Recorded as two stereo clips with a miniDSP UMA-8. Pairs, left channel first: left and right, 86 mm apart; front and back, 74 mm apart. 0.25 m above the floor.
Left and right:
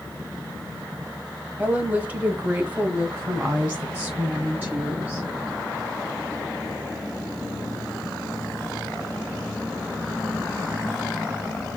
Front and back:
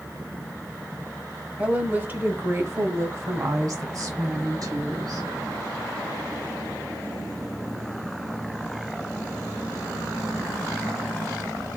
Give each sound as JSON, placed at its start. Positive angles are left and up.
{"t": 1.6, "sound": "a woman speaking", "azimuth_deg": -130, "distance_m": 1.1}